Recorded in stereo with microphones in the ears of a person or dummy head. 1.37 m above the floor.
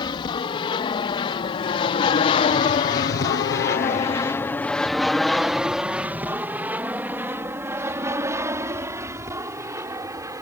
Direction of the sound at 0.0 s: 30° left (ahead or behind).